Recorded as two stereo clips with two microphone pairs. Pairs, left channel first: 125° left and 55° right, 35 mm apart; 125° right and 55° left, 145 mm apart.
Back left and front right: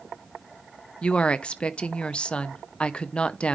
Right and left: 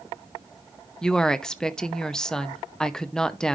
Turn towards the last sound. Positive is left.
turn(degrees=160)